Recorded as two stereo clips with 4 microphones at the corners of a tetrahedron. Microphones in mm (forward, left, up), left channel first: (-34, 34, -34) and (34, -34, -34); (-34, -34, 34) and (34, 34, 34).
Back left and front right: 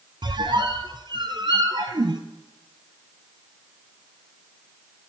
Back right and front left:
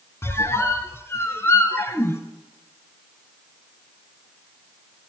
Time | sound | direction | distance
0.2 | a squeak | 75° right | 0.7 m